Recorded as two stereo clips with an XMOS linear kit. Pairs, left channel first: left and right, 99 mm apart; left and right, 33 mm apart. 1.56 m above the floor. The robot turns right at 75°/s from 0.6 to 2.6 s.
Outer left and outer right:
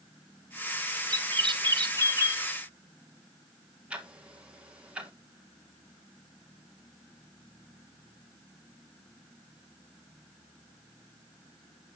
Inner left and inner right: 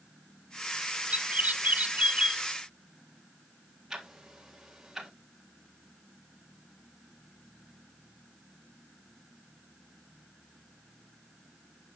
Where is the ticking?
10° right (ahead or behind), 1.6 m.